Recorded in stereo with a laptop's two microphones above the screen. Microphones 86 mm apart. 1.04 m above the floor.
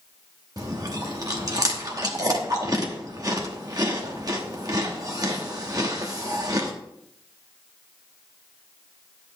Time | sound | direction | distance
0.6 | chewing | 40° right (ahead or behind) | 1.1 m